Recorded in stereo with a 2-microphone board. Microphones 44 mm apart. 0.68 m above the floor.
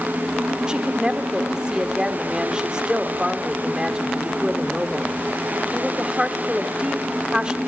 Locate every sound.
0.7 s a woman speaking: 20° right (ahead or behind), 1.4 m